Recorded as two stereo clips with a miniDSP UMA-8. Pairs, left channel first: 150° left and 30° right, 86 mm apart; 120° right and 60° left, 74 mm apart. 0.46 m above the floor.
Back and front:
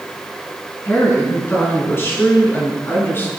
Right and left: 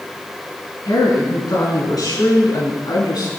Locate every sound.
0.8 s a woman speaking: 150° right, 6 m; by 3.3 s 145° right, 5 m